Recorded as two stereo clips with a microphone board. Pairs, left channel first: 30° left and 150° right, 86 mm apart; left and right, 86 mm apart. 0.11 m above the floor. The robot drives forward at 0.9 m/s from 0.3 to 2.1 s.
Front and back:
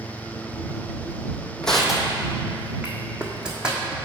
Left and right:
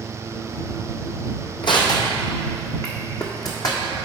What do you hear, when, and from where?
1.6 s crushing: 110° left, 1.0 m; by 4.0 s 130° left, 1.2 m